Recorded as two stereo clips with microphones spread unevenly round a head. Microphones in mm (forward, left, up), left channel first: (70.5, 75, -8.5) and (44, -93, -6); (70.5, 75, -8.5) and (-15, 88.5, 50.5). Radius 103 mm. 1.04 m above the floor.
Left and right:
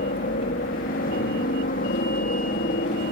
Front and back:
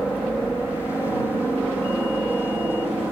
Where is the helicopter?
75° left; by 3.1 s 80° left.